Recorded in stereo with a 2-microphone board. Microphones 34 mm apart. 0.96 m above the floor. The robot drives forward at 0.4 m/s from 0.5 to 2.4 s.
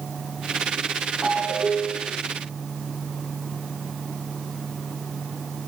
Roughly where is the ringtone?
Centre.